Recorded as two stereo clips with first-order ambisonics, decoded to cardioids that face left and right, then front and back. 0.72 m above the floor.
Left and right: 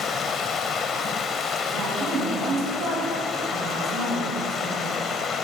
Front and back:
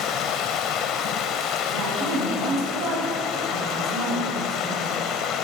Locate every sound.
0.0 s running water: 35° left, 0.8 m
1.7 s a woman speaking: 135° right, 5 m